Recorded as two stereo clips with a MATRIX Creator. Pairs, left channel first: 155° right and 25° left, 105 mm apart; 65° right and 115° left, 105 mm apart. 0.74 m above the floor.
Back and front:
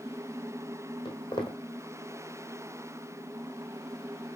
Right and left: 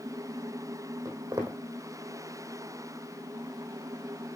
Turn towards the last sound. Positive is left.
turn(degrees=170)